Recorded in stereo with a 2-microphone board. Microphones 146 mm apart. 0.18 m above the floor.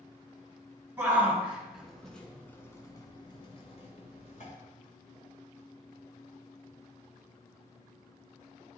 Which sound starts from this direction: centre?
A shout, at 1.0 s.